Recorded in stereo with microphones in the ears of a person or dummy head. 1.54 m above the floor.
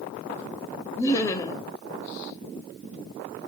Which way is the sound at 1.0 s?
15° left (ahead or behind).